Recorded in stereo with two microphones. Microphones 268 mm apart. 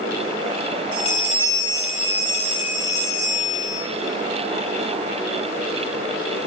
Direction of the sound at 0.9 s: 45° right (ahead or behind).